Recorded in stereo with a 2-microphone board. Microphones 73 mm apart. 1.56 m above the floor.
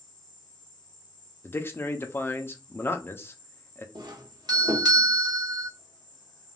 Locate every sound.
0.0 s an insect: 65° left (ahead or behind), 0.9 m
1.4 s a man speaking: 30° left (ahead or behind), 0.5 m
4.0 s a doorbell: 65° right (ahead or behind), 0.6 m